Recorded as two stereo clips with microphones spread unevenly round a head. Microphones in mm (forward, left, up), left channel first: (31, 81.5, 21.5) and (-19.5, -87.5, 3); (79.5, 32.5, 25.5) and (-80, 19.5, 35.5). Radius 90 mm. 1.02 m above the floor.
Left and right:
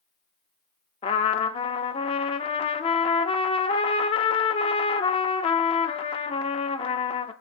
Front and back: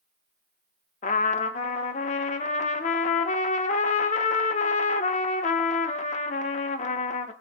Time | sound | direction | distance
1.0 | a trumpet | 35° left | 0.7 m